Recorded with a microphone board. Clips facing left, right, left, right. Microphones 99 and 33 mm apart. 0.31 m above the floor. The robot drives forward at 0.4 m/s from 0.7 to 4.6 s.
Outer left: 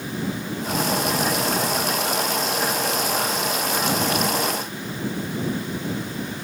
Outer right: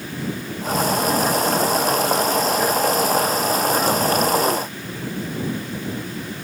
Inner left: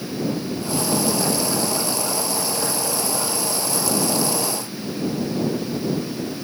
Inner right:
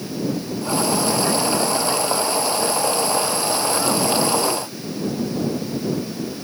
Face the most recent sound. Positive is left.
No sound to turn to.